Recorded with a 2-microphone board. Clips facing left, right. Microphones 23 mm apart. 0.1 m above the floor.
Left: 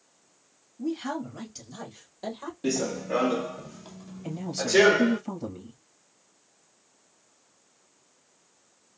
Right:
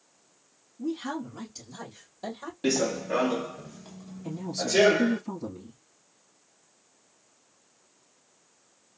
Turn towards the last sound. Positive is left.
turn(degrees=30)  # may be behind; listen again after turning